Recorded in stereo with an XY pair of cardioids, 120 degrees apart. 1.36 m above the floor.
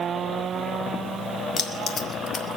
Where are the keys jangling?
40° left, 2.0 m.